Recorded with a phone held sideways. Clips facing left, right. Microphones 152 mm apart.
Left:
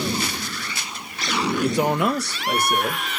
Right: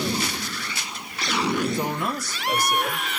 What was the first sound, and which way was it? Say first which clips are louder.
A man speaking: left 5 dB; 70° left (ahead or behind).